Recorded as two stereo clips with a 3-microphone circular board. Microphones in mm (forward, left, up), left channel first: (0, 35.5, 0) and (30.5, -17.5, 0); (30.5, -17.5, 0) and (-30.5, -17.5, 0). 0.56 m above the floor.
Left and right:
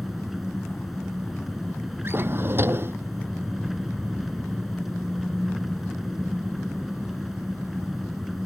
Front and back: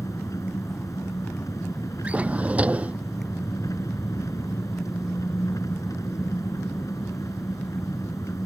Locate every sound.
0.0 s an engine running: 30° left
2.0 s a drawer: 110° right